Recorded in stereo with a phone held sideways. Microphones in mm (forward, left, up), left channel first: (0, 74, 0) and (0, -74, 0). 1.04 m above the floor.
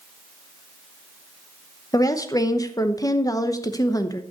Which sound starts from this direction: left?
A woman speaking, at 1.9 s.